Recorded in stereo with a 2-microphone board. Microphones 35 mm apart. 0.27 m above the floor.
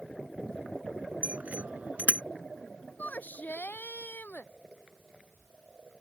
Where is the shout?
60° left (ahead or behind).